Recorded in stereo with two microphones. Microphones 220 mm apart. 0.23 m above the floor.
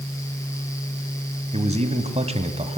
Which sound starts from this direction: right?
A man speaking, at 1.5 s.